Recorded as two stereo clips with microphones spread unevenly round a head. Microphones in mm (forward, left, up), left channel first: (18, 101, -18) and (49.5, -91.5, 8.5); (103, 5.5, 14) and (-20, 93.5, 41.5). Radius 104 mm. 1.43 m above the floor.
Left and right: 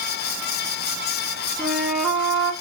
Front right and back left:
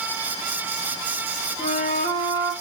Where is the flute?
5° left, 0.8 m.